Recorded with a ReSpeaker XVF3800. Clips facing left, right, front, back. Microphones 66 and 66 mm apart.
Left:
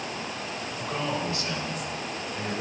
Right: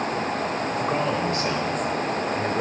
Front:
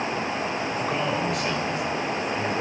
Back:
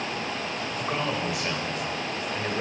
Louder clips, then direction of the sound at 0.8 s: Right 4 dB, front 1 dB; 95° right.